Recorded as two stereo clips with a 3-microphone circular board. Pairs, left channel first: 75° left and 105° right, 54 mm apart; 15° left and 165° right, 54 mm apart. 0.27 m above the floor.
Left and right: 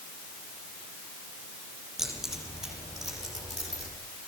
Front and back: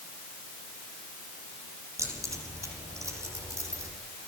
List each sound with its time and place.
2.0 s keys jangling: 175° left, 8.5 m; by 3.9 s 160° left, 8 m